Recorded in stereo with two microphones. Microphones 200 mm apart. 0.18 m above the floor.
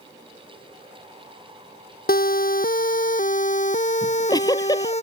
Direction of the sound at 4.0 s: 20° left (ahead or behind).